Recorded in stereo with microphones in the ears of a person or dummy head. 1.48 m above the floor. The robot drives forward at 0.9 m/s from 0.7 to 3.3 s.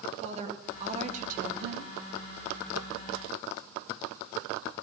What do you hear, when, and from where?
0.2 s a woman speaking: 35° right (ahead or behind), 2 m; by 1.9 s 65° right (ahead or behind), 1.3 m